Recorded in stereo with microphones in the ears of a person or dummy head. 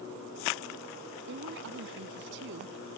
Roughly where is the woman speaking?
Right.